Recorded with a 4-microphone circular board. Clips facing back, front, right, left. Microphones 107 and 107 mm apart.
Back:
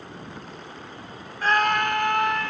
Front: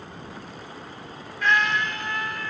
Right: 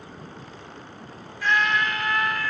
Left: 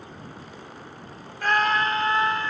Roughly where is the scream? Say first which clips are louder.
Back 2 dB, left 1 dB; behind left.